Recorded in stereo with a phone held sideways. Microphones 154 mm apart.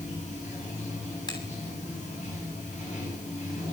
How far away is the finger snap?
About 8.5 m.